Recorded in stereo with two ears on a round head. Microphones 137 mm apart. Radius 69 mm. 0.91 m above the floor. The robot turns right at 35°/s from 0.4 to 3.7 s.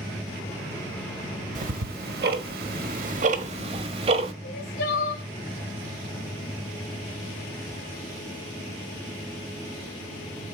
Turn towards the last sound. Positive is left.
turn(degrees=75)  # may be behind; listen again after turning